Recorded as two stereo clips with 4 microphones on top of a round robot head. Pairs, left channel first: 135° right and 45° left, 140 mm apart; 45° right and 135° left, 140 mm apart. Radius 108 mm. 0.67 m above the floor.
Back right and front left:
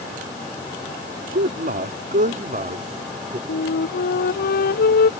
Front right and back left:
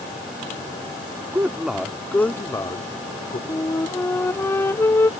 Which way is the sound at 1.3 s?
60° left.